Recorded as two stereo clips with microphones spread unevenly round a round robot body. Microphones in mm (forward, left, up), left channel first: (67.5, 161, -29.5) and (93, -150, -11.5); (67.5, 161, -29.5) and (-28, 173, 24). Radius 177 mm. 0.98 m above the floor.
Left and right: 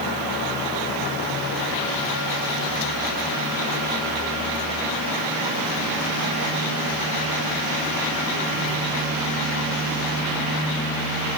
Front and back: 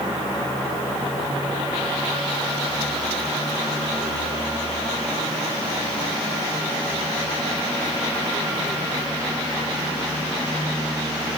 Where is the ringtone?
No ringtone in this recording.